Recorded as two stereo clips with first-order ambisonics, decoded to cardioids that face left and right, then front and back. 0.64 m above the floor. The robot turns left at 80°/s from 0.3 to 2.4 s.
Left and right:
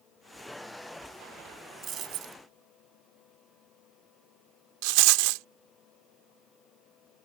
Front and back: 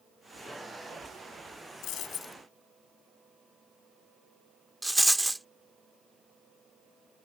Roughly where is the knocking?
I don't hear knocking.